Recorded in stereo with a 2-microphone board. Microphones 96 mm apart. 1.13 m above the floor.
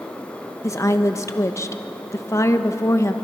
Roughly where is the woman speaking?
Left.